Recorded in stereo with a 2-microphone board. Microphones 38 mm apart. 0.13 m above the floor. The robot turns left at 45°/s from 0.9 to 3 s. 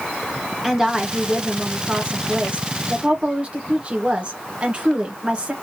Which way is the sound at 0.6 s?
25° right.